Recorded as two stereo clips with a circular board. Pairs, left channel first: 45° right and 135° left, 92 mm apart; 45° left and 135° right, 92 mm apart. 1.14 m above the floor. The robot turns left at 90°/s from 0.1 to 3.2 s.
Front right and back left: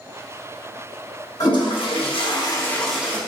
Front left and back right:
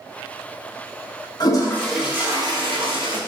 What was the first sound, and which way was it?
A toilet flushing, 5° left.